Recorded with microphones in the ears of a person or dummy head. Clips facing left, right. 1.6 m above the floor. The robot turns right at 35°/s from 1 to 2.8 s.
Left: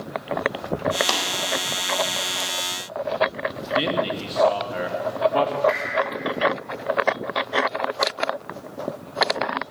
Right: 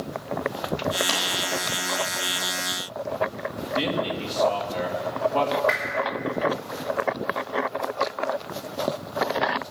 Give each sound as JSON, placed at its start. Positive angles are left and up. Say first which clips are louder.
{"t": 1.1, "sound": "tapping", "louder": "left 3 dB", "side_deg": 70, "distance_m": 4.0}
{"t": 3.8, "sound": "a man speaking", "louder": "left 2 dB", "side_deg": 10, "distance_m": 1.5}
{"t": 5.7, "sound": "a whoosh", "louder": "left 3 dB", "side_deg": -20, "distance_m": 3.5}